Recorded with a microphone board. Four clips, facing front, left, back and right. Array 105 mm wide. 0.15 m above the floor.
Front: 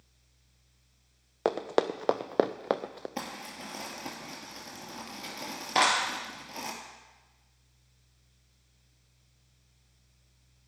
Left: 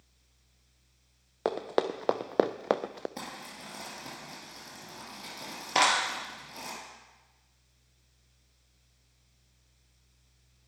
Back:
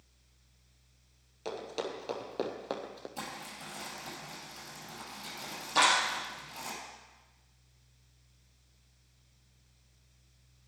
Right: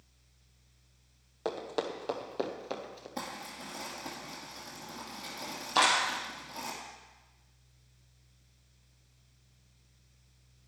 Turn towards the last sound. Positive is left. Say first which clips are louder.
# left 1 dB, front 1 dB
turn(degrees=55)